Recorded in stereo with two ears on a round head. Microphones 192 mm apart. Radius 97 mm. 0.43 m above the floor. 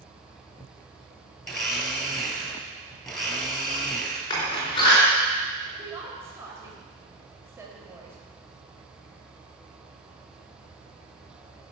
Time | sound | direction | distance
1.4 | a blender | 5° left (ahead or behind) | 2.5 m
4.3 | a door slam | 20° left (ahead or behind) | 4 m
5.7 | a woman speaking | 15° right (ahead or behind) | 2.5 m